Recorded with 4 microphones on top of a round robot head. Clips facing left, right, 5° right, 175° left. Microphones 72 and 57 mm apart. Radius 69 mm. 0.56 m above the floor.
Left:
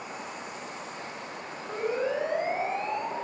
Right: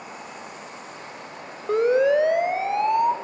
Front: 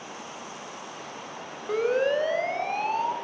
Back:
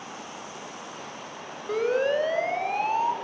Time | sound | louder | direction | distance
1.7 | a siren | right 11 dB, even | 95° right | 3 m